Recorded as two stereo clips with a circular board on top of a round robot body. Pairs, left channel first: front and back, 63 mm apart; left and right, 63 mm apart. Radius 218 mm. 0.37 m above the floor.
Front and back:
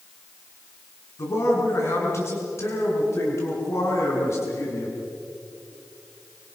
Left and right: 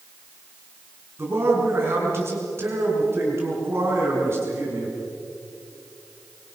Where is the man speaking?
40° right, 6 m.